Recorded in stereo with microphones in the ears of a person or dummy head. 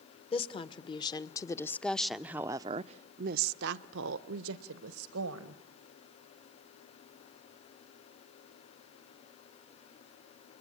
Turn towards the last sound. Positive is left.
turn(degrees=-80)